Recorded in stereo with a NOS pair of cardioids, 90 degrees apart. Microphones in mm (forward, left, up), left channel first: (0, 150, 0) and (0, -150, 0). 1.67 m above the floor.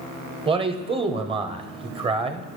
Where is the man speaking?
20° right, 0.7 m.